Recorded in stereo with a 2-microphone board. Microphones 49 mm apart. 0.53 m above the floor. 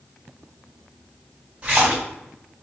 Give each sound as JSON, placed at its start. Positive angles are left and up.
{"t": 1.6, "sound": "a splash", "side_deg": -25, "distance_m": 1.8}